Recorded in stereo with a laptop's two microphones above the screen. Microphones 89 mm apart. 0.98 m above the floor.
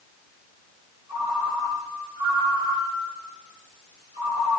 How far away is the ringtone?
About 1.7 m.